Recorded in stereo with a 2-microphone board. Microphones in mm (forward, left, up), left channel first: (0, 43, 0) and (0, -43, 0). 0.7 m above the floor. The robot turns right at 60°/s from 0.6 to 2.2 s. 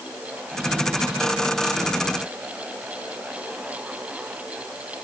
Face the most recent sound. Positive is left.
No sound to turn to.